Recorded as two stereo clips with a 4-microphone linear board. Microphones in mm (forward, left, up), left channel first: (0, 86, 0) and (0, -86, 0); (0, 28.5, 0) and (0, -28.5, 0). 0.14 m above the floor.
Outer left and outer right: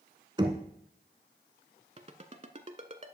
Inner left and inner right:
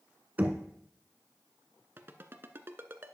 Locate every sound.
0.4 s knocking: 30° right (ahead or behind), 0.9 m
2.0 s a ringtone: 40° right (ahead or behind), 0.6 m